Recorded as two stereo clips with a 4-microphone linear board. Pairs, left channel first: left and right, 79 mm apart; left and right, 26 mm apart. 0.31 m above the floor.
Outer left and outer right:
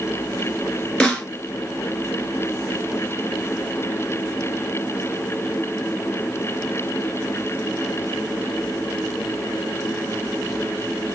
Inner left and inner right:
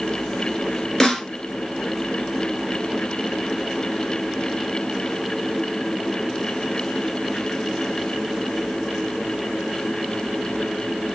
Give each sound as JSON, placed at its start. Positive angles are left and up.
{"t": 1.0, "sound": "a snare drum", "side_deg": 10, "distance_m": 1.3}